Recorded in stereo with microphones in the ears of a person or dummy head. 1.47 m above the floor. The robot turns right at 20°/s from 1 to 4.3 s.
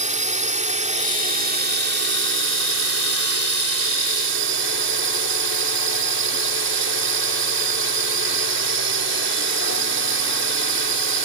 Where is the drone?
145° right; by 11.2 s 75° right.